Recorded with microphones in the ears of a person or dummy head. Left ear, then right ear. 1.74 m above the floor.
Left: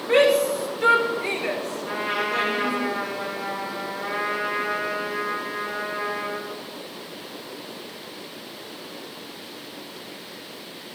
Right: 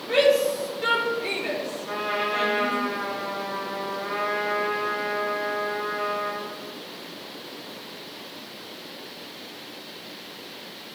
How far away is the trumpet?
About 8 m.